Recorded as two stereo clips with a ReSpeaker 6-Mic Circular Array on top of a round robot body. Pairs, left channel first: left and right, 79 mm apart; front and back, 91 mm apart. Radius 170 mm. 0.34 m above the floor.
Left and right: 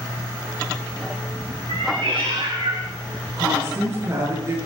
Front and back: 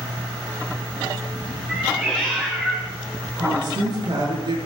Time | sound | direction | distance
1.7 | a cat meowing | 100° right | 4.5 m
3.4 | a woman speaking | 145° right | 8.5 m